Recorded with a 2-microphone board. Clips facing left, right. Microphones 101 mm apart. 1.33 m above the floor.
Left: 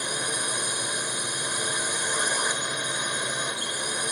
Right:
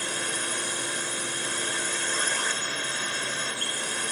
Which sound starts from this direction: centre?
A drone, at 0.0 s.